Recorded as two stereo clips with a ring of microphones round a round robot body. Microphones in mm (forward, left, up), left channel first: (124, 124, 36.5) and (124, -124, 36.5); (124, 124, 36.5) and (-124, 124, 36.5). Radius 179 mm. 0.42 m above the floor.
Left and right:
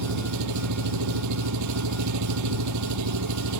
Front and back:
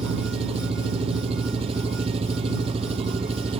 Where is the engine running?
105° right.